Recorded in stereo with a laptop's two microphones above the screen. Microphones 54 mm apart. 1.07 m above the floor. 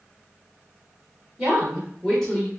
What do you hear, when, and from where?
1.4 s a woman speaking: 15° right (ahead or behind), 1.3 m; by 2.5 s 20° left (ahead or behind), 1.3 m